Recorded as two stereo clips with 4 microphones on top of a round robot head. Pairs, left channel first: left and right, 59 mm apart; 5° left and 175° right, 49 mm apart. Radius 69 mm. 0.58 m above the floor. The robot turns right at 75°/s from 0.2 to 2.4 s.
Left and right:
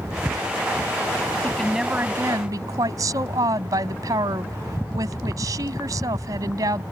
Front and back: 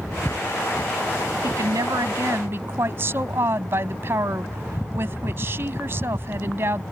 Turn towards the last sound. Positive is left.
turn(degrees=-125)